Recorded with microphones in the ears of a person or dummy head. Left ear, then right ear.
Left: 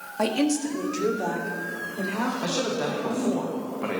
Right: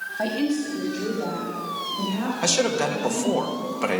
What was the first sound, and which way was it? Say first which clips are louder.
A woman speaking: left 2 dB; 90° left.